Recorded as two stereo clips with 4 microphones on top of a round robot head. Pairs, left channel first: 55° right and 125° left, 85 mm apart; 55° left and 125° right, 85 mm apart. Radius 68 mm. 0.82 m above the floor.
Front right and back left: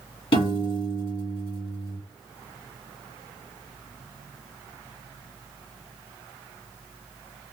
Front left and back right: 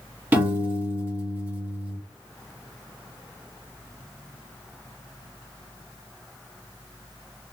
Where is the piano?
55° right, 2.5 m.